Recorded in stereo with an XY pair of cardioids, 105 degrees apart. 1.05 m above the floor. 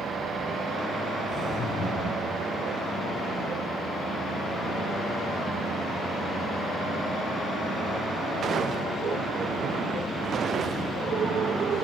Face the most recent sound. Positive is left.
turn(degrees=70)